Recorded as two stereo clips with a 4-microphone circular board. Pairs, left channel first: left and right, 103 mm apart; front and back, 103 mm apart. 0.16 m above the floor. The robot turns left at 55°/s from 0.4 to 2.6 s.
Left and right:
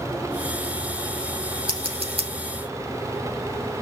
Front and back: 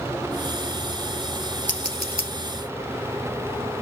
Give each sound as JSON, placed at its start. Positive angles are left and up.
{"t": 1.7, "sound": "scissors", "azimuth_deg": -70, "distance_m": 2.5}